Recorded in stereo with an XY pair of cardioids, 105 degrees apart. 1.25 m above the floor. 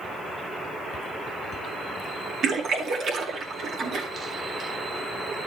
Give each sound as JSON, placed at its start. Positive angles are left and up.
{"t": 2.4, "sound": "a splash", "azimuth_deg": -70, "distance_m": 2.5}